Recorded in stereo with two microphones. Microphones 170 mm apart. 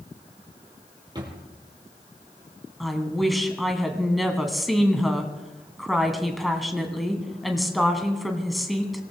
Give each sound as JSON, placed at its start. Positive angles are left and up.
{"t": 1.1, "sound": "a drawer", "side_deg": -25, "distance_m": 3.5}
{"t": 2.8, "sound": "a woman speaking", "side_deg": 0, "distance_m": 2.0}